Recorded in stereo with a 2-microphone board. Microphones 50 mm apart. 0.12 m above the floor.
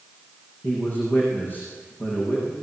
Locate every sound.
0.6 s a man speaking: 40° left (ahead or behind), 8.5 m